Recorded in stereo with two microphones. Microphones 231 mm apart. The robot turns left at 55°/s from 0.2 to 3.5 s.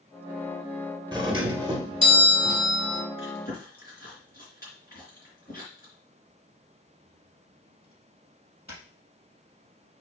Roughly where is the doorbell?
Centre.